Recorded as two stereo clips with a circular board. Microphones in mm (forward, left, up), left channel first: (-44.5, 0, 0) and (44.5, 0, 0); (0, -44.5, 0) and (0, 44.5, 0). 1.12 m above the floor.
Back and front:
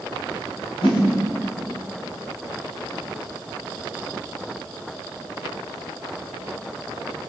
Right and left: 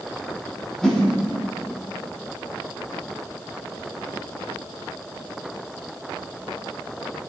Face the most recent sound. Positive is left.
turn(degrees=-175)